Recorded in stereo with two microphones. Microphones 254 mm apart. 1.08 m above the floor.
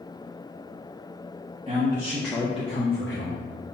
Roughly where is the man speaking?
Right.